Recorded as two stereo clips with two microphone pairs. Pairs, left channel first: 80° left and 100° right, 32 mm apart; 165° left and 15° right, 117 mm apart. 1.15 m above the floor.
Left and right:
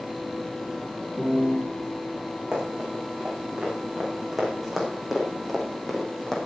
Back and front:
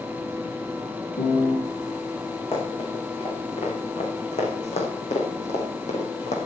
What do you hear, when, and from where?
1.2 s a piano: 170° right, 5 m
2.5 s running footsteps: 160° right, 6.5 m; by 6.4 s 155° left, 4 m